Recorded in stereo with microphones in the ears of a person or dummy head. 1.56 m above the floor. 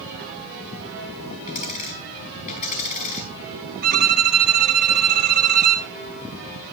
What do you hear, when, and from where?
1.5 s a dropped coin: 40° left (ahead or behind), 5.5 m
3.8 s a violin: 50° right (ahead or behind), 1.5 m